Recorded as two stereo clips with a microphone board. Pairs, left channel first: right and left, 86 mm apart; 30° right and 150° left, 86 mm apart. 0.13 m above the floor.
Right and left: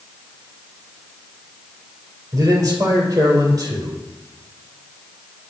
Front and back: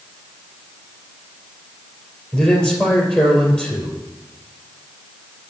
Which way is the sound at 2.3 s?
45° left.